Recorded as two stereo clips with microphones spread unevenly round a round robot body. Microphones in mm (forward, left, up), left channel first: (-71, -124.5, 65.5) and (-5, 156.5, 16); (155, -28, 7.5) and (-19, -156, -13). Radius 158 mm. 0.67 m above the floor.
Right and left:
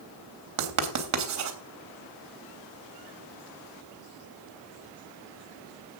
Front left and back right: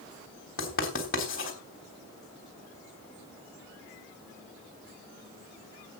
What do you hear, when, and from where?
0.6 s writing: 100° left, 3 m